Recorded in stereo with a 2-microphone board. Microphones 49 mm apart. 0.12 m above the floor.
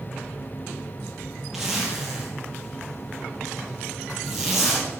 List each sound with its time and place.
1.5 s a zipper: 10° right (ahead or behind), 3.5 m